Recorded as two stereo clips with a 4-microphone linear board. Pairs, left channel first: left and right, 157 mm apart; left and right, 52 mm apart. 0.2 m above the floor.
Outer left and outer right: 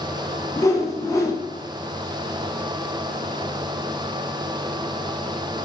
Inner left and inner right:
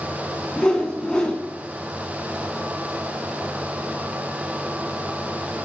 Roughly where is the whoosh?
Left.